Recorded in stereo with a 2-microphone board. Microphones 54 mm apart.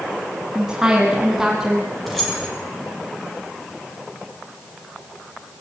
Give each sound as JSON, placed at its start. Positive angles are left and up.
{"t": 0.6, "sound": "a woman speaking", "side_deg": -15, "distance_m": 3.5}
{"t": 2.1, "sound": "keys jangling", "side_deg": 5, "distance_m": 8.0}